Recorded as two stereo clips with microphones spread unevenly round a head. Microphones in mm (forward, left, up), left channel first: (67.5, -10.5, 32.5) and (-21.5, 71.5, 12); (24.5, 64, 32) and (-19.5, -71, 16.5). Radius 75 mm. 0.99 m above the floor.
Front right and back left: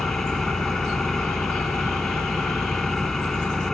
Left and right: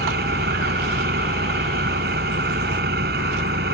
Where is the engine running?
130° right.